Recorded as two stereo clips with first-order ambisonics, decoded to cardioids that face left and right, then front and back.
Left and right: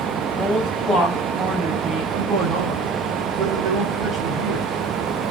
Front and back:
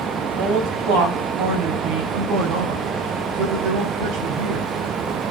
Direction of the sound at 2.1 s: 150° right.